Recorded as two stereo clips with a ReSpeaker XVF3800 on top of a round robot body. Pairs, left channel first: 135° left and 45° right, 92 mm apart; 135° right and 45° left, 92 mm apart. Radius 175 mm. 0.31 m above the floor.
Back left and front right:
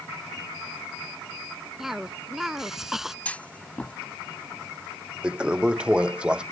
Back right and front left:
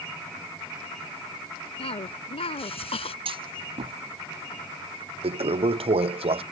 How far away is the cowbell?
No cowbell in this recording.